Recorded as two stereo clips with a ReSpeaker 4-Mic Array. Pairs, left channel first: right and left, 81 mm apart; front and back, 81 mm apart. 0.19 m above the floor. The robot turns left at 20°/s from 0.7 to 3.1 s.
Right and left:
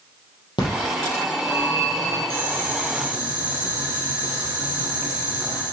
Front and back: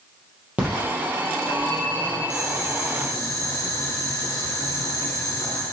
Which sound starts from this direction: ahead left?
Boiling, at 2.3 s.